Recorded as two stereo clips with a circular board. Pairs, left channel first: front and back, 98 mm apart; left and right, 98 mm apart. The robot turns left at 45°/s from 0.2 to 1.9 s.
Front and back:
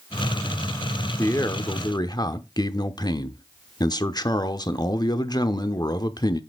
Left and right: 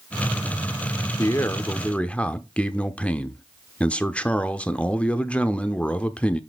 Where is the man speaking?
50° left, 0.9 m; by 6.4 s 15° left, 0.9 m.